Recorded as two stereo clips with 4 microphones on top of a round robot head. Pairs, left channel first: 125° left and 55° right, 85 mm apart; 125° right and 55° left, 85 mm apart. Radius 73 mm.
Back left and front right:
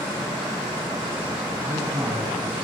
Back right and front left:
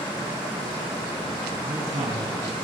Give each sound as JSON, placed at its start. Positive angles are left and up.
{"t": 1.6, "sound": "a man speaking", "azimuth_deg": 10, "distance_m": 8.0}